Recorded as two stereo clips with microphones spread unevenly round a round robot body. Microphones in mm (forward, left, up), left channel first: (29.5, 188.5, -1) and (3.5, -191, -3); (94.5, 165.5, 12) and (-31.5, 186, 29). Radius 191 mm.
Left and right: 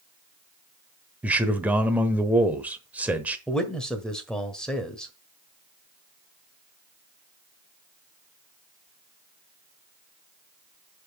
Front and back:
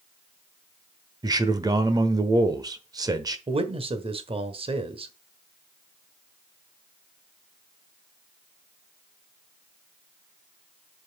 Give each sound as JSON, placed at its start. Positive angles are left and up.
{"t": 1.2, "sound": "a man speaking", "azimuth_deg": -175, "distance_m": 1.0}
{"t": 3.5, "sound": "a man speaking", "azimuth_deg": 175, "distance_m": 1.5}